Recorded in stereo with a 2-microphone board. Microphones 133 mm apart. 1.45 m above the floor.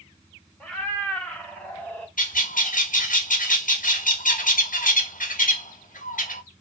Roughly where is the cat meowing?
Centre.